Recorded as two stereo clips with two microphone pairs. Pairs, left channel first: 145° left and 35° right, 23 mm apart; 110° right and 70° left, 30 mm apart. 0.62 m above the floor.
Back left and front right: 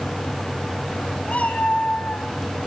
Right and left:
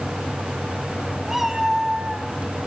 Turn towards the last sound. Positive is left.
turn(degrees=140)